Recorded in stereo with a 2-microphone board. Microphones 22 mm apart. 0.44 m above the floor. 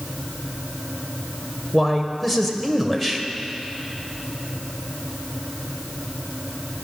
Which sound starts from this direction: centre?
A man speaking, at 1.7 s.